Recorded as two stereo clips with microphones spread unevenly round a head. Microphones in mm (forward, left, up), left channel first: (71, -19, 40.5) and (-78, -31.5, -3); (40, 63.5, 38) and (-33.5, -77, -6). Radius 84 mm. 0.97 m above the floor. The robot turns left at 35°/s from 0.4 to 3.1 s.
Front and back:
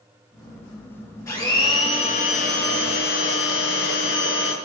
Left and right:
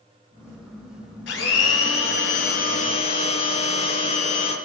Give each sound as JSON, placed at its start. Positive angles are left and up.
{"t": 1.3, "sound": "a blender", "azimuth_deg": 75, "distance_m": 4.0}